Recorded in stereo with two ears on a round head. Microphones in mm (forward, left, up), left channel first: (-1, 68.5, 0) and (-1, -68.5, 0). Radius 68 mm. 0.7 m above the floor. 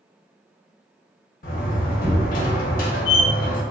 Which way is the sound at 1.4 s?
60° left (ahead or behind).